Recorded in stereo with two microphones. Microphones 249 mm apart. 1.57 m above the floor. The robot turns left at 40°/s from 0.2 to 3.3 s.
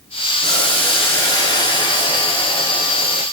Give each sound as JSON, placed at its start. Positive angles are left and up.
{"t": 0.4, "sound": "boiling", "side_deg": 0, "distance_m": 1.1}